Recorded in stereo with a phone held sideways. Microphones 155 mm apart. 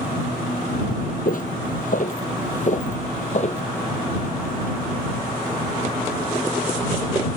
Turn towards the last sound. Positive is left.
turn(degrees=45)  # may be behind; listen again after turning